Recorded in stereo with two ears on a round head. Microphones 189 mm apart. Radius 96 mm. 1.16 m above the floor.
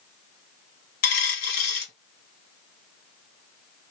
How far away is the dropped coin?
About 1.4 m.